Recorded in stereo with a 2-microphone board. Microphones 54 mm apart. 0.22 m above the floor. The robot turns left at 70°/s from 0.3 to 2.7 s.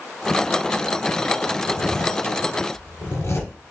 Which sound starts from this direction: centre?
A zipper, at 1.7 s.